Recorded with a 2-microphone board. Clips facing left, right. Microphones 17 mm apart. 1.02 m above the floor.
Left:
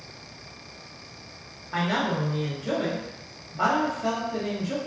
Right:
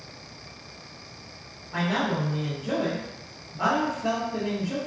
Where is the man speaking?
55° left (ahead or behind), 0.6 m.